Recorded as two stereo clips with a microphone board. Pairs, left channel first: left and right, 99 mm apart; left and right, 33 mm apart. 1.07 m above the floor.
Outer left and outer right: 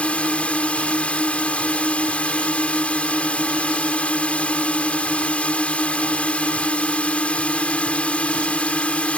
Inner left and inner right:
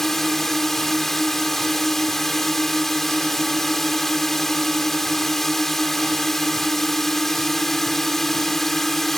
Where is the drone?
15° left (ahead or behind).